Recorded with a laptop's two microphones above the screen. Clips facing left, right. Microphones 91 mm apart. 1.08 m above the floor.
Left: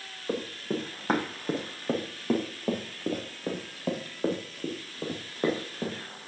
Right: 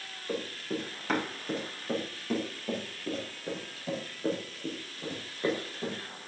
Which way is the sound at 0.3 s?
35° left (ahead or behind).